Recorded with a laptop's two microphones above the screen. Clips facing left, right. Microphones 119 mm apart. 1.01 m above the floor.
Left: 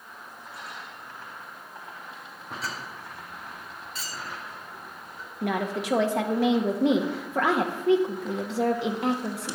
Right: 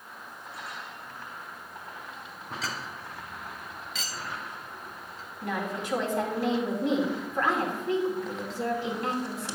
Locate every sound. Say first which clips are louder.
2.6 s a clink: even; 85° right, 0.7 m
5.4 s a woman speaking: left 4 dB; 70° left (ahead or behind), 1.3 m